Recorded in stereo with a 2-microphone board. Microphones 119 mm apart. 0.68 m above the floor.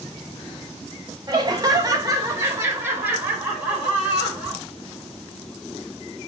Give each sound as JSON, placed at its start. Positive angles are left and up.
{"t": 1.3, "sound": "laughter", "side_deg": -35, "distance_m": 0.9}